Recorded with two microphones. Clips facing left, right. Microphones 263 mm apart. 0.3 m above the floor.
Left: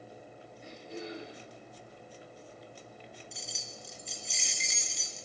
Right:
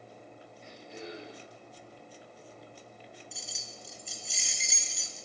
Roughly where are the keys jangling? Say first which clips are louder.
Left 1 dB; centre.